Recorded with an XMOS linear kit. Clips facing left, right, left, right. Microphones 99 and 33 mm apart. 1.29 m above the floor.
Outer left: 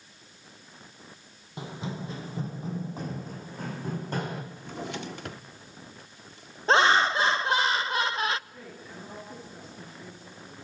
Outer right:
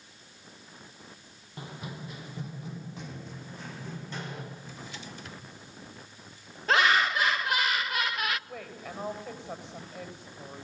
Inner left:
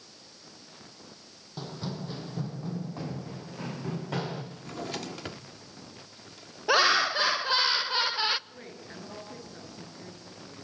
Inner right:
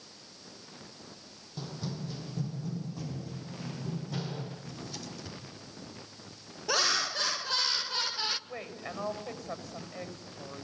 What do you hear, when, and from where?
1.6 s running footsteps: 20° left (ahead or behind), 2.5 m; by 4.4 s 50° left (ahead or behind), 4.5 m
4.5 s a drawer: 65° left (ahead or behind), 1.4 m
6.7 s laughter: 30° left (ahead or behind), 0.6 m
8.5 s a woman speaking: 85° right, 7 m